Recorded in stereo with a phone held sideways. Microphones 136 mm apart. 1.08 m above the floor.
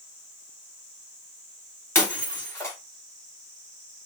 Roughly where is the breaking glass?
Centre.